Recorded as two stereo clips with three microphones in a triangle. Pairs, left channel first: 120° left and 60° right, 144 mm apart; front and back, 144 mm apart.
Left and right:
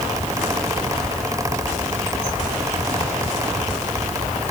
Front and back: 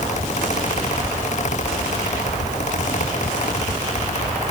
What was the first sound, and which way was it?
Only background noise.